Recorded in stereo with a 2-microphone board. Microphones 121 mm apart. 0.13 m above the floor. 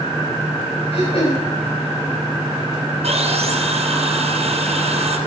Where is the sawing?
65° right (ahead or behind), 3 m.